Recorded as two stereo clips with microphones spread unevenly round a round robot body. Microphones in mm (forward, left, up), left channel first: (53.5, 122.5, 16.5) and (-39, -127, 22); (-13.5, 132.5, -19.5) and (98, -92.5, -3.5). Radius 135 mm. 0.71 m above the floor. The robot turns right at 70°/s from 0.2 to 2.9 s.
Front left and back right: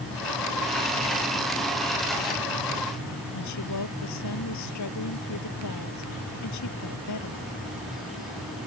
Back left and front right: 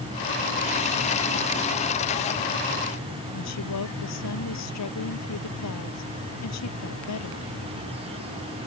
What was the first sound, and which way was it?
A woman speaking, 100° left.